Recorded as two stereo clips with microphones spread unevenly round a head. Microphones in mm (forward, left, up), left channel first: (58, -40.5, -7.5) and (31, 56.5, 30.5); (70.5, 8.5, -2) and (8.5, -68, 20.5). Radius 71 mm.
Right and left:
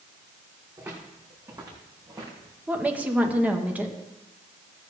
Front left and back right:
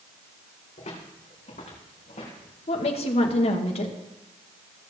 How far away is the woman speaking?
About 1.7 m.